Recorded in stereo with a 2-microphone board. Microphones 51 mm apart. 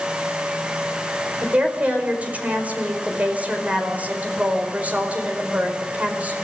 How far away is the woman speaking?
About 4.5 m.